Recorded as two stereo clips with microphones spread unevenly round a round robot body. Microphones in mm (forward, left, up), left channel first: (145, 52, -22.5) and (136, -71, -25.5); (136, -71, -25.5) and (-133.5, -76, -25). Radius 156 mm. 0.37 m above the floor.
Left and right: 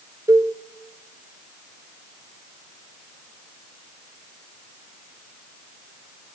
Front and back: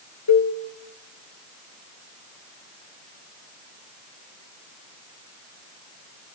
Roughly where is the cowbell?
Ahead right.